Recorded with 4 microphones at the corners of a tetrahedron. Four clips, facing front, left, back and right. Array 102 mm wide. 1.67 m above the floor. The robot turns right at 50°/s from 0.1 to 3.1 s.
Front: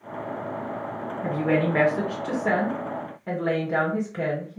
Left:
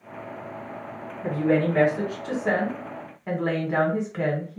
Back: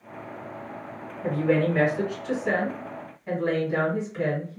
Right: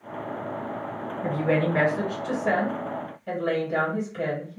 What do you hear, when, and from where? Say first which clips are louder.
1.2 s a woman speaking: left 2 dB, back 1 dB; 40° right, 1.9 m; by 4.6 s 55° left, 1.9 m